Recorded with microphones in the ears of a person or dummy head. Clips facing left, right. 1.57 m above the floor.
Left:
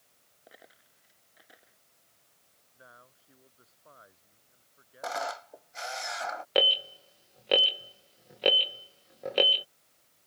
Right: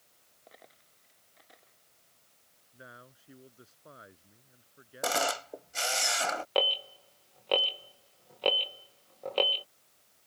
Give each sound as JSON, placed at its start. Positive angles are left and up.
{"t": 0.5, "sound": "a dropped coin", "side_deg": 10}
{"t": 2.7, "sound": "a man speaking", "side_deg": -40}
{"t": 5.0, "sound": "a camera shutter", "side_deg": -50}
{"t": 6.5, "sound": "an alarm", "side_deg": 20}